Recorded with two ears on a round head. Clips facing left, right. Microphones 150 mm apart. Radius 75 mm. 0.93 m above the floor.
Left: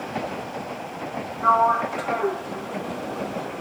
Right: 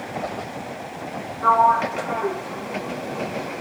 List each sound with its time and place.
1.4 s a sliding door: 75° right (ahead or behind), 3 m